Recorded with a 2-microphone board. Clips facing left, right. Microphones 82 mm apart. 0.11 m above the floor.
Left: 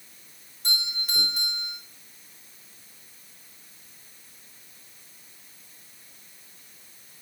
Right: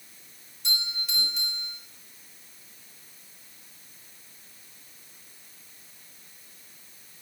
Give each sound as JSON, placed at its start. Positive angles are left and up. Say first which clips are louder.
{"t": 0.6, "sound": "a doorbell", "louder": "left 2 dB", "side_deg": 45, "distance_m": 4.5}